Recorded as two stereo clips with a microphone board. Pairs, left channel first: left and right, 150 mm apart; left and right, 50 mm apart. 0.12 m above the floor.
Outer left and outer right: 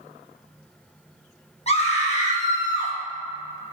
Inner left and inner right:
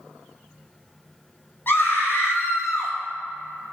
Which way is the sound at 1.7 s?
45° left (ahead or behind).